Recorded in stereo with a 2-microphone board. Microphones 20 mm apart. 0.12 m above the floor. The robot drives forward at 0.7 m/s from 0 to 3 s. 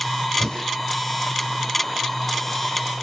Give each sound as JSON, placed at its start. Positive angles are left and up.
{"t": 0.4, "sound": "breathing", "side_deg": 40, "distance_m": 6.0}